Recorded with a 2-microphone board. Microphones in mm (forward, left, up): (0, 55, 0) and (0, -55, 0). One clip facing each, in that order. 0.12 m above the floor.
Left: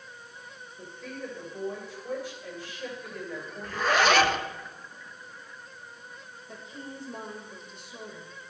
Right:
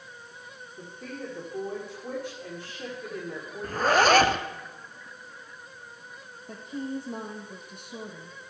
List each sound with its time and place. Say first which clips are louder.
0.8 s a woman speaking: right 1 dB; 65° right (ahead or behind), 8 m
3.6 s a zipper: right 3 dB; 45° right (ahead or behind), 0.9 m
6.5 s a woman speaking: right 9 dB; 60° right (ahead or behind), 4 m